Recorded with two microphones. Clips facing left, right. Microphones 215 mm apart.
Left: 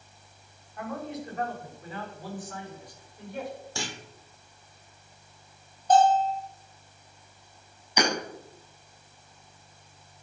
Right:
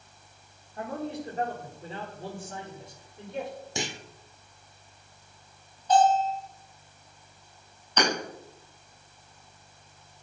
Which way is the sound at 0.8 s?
35° right (ahead or behind).